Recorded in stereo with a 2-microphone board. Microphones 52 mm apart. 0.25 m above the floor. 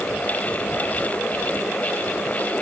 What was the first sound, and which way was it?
Only background noise.